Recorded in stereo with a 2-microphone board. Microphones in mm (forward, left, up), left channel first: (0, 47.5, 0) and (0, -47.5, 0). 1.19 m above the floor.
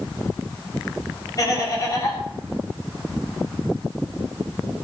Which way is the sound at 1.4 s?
40° left (ahead or behind).